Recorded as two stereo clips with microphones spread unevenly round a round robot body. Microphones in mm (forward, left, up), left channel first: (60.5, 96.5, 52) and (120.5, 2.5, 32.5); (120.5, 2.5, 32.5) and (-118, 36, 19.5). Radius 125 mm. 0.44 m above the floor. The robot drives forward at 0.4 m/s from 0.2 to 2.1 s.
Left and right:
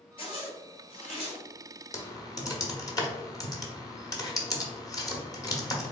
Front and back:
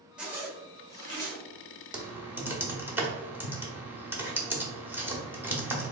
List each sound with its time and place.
0.2 s a zipper: 90° left, 1.7 m; by 1.4 s 110° left, 1.7 m
1.9 s typing on a keyboard: 100° left, 0.8 m; by 5.9 s 110° left, 0.8 m